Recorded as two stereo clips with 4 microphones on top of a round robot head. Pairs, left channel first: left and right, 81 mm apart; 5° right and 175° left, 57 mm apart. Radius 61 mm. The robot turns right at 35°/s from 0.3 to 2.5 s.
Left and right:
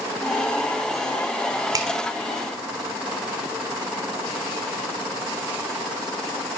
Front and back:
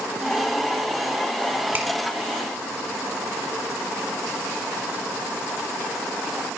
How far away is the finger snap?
About 1.7 m.